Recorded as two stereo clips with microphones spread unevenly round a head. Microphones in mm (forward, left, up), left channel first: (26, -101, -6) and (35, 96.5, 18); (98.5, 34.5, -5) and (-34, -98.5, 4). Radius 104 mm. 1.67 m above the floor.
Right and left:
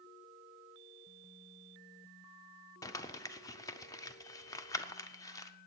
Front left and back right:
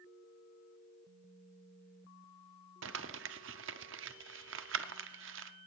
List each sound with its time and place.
2.8 s crumpling: 170° right, 0.6 m